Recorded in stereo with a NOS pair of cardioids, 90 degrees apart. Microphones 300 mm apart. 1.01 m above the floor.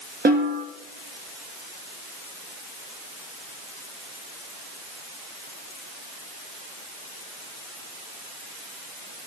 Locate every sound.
0.2 s a snare drum: 30° right, 1.6 m